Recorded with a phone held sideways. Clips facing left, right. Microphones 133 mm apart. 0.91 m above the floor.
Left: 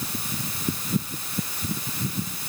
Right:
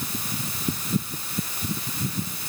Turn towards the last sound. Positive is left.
No sound to turn to.